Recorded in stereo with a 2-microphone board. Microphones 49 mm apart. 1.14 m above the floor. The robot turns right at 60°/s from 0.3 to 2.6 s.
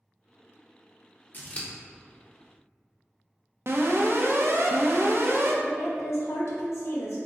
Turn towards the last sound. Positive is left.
turn(degrees=65)  # may be behind; listen again after turning